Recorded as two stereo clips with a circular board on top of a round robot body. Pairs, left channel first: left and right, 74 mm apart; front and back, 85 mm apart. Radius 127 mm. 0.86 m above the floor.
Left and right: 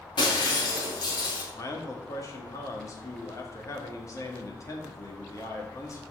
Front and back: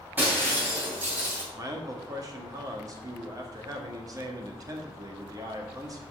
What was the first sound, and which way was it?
Breaking glass, 110° left.